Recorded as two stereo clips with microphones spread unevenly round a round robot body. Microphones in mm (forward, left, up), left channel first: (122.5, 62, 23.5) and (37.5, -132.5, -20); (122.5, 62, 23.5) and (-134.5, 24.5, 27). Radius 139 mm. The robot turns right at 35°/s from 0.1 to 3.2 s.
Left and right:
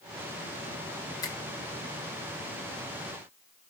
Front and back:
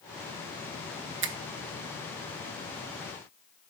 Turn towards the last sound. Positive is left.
turn(degrees=-145)